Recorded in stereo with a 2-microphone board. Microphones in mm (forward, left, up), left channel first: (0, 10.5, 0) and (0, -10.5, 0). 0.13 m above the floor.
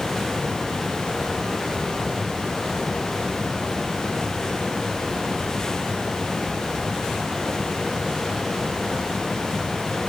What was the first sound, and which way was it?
Only background noise.